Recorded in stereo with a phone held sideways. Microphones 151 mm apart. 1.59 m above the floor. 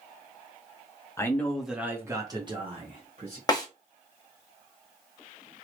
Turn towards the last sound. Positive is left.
turn(degrees=25)  # may be behind; listen again after turning